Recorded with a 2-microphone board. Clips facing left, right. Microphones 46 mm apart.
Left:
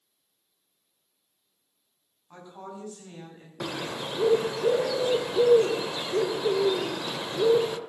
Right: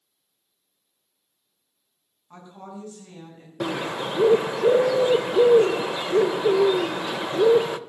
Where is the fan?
No fan in this recording.